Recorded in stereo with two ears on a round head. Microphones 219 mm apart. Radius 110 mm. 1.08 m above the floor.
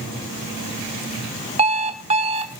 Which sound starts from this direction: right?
An alarm clock, at 1.6 s.